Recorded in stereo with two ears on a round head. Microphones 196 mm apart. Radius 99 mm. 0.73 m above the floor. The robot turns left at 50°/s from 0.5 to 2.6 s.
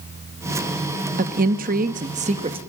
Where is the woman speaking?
70° right, 1.0 m; by 2.6 s 140° right, 1.0 m.